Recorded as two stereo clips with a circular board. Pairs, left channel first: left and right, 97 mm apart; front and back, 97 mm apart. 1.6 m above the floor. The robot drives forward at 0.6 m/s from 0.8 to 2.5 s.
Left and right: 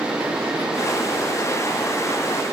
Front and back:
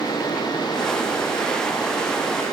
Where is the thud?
No thud in this recording.